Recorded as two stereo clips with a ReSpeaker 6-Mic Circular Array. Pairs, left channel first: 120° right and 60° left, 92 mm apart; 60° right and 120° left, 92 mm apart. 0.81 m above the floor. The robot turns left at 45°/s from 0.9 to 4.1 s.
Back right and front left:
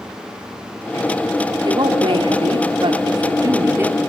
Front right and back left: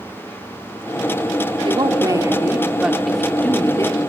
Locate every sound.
1.6 s a woman speaking: 95° left, 2.5 m; by 4.0 s 10° right, 2.5 m